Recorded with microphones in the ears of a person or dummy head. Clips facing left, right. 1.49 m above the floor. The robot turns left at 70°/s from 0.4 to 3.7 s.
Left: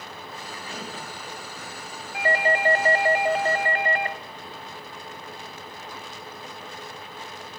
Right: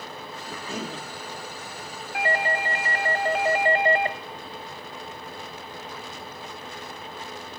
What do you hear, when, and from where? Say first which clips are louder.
0.5 s a cough: right 5 dB; 85° right, 3 m; by 1.1 s 125° right, 3 m
2.1 s a doorbell: left 3 dB; 85° left, 1.1 m; by 4.2 s 25° right, 1.1 m